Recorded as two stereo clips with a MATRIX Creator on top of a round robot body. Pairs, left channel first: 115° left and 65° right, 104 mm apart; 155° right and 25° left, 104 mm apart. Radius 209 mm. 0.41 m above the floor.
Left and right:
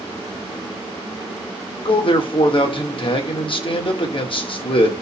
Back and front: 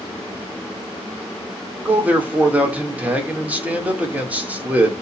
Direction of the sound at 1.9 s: 95° left.